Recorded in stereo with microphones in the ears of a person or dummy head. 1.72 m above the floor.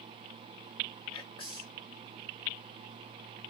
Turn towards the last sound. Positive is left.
turn(degrees=30)  # may be behind; listen again after turning